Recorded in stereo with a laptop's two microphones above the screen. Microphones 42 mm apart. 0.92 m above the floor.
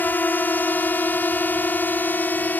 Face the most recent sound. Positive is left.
turn(degrees=50)  # may be behind; listen again after turning